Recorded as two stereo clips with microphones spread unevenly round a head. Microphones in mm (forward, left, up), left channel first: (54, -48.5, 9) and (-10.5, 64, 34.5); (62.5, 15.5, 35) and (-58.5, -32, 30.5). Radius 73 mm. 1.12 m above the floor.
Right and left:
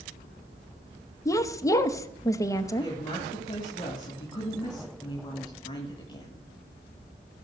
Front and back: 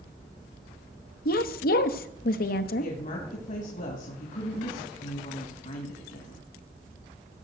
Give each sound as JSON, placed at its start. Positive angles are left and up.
{"t": 1.2, "sound": "a woman speaking", "azimuth_deg": 5, "distance_m": 0.9}
{"t": 2.8, "sound": "a woman speaking", "azimuth_deg": -10, "distance_m": 2.0}